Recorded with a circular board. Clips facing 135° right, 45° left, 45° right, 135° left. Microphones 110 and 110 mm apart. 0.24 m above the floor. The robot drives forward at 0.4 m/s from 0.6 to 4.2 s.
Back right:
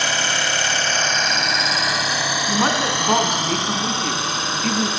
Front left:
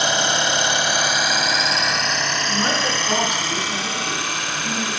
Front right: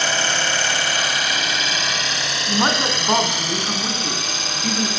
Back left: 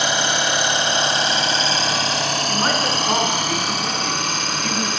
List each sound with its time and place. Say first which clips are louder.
0.0 s an engine running: front left 2 dB, back left 2 dB; 90° left, 0.9 m; by 5.0 s 165° left, 1.7 m
2.5 s a woman speaking: back right 4 dB, front right 4 dB; 105° right, 2 m; by 4.9 s 125° right, 2.5 m